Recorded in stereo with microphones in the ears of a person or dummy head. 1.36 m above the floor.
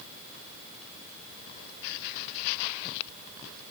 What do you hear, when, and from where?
Only background noise.